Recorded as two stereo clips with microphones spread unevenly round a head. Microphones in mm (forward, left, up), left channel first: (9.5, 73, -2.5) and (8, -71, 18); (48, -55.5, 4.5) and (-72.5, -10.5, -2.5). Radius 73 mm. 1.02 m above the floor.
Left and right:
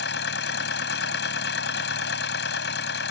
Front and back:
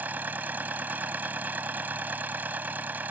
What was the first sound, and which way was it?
A machine running, 80° left.